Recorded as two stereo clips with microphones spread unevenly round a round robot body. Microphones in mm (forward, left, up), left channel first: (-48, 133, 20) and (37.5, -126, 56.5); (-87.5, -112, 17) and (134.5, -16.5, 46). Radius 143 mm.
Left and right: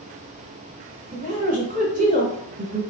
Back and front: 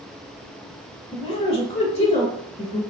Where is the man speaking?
125° right, 1.6 m.